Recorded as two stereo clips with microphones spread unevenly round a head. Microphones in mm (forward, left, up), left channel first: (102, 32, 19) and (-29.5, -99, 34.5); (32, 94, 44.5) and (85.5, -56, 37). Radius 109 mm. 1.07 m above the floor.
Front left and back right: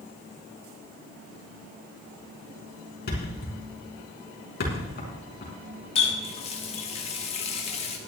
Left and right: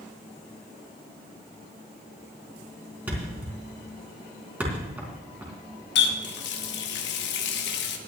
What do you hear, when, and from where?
3.1 s a thud: 10° left, 4.5 m
6.0 s a running tap: 110° left, 1.1 m